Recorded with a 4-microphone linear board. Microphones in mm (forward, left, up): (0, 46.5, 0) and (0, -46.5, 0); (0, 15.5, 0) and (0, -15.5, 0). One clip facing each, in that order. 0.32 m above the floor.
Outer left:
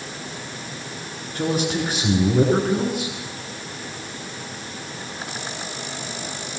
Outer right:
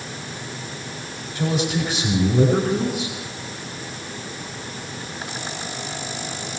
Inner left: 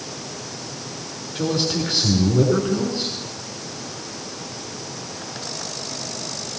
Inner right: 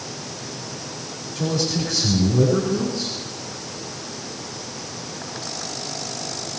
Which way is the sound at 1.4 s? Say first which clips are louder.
Even, inner left 1 dB; 50° left (ahead or behind).